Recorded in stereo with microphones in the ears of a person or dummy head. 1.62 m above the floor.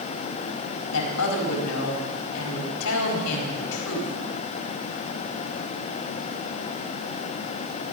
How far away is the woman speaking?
About 4.5 m.